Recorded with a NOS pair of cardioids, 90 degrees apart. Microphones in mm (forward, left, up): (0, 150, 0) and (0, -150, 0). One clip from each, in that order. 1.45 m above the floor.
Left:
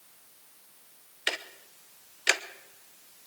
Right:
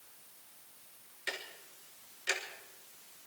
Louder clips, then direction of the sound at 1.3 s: Left 8 dB; 60° left.